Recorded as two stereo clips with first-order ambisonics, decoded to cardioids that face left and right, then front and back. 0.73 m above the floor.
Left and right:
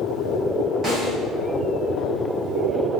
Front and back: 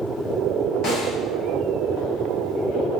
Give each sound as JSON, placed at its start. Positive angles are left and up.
{"t": 0.8, "sound": "a snare drum", "azimuth_deg": -25, "distance_m": 1.3}